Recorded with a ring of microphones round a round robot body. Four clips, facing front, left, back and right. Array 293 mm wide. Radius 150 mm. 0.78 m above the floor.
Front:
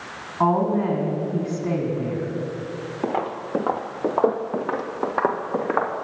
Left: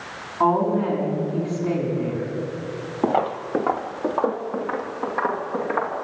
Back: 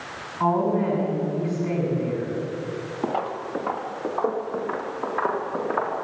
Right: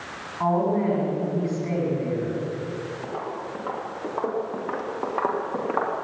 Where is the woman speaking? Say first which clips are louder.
Left 3 dB, front 2 dB; 20° left, 7 m.